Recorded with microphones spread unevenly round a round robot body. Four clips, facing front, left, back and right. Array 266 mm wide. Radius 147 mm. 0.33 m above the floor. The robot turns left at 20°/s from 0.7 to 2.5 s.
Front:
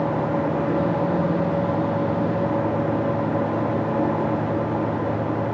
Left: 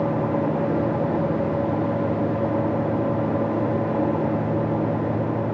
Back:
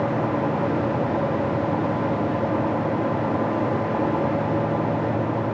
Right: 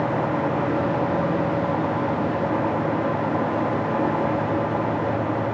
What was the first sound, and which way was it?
Only background noise.